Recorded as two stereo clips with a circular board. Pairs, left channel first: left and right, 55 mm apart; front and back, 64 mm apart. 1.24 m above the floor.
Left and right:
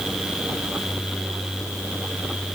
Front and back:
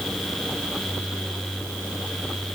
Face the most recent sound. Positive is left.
No sound to turn to.